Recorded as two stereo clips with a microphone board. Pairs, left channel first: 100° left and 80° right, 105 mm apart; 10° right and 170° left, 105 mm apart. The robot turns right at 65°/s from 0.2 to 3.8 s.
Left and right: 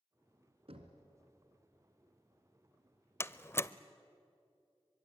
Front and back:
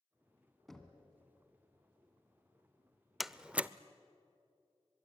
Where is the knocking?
100° right, 2 m; by 1.0 s 75° right, 2 m.